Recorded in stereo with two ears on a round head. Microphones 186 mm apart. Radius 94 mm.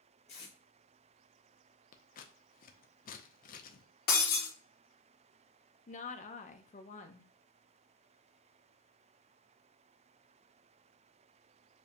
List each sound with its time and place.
0.3 s tape being pulled: 30° left (ahead or behind), 1.8 m
1.9 s scissors: 45° left (ahead or behind), 0.6 m
4.1 s breaking glass: 45° left (ahead or behind), 1.5 m
5.9 s a woman speaking: 35° left (ahead or behind), 0.8 m